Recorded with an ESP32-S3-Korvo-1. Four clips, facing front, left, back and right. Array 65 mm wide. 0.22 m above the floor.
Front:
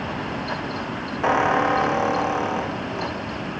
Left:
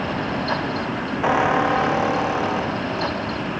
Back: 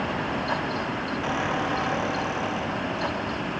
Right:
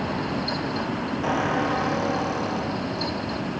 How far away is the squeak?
About 4 m.